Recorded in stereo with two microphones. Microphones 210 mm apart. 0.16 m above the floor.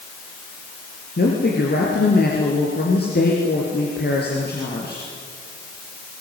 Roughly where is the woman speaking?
Left.